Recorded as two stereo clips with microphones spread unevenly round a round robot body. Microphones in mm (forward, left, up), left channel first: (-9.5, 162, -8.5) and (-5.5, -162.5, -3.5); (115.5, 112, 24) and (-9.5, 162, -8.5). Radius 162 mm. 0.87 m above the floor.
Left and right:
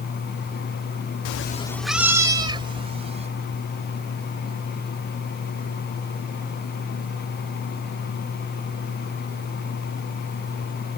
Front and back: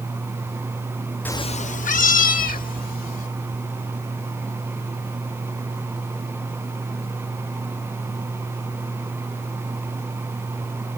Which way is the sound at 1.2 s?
55° left.